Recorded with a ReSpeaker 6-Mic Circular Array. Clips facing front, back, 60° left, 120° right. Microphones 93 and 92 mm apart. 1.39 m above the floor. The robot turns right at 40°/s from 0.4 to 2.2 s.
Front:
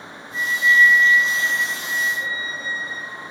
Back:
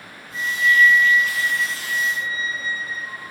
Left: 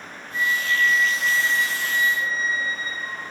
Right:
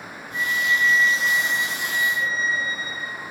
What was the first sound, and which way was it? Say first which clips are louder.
A flute: front 1 dB, even; 140° right.